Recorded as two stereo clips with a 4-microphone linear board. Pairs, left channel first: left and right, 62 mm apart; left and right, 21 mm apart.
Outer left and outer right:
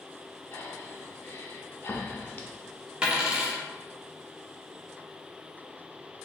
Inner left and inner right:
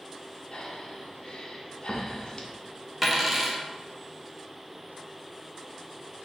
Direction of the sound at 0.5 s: 35° left (ahead or behind).